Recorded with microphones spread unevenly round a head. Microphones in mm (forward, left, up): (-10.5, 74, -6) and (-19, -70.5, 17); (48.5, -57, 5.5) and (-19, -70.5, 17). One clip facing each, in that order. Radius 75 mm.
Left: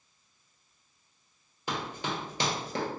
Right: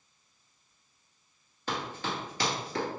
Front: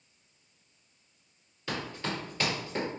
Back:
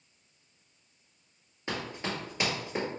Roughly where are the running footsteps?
Behind.